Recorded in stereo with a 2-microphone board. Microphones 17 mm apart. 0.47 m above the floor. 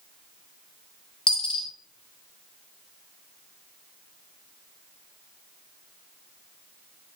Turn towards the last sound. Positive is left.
turn(degrees=55)  # may be behind; listen again after turning